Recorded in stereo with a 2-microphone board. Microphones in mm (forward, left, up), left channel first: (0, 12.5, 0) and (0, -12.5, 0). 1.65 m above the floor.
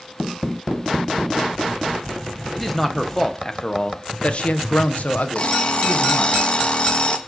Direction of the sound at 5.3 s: 45° left (ahead or behind).